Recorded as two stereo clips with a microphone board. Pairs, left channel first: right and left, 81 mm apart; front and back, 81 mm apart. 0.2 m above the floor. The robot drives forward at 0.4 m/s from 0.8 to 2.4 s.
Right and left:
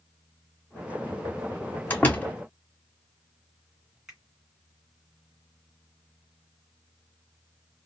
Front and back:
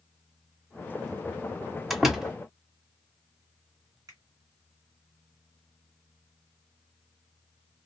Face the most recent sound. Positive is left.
turn(degrees=175)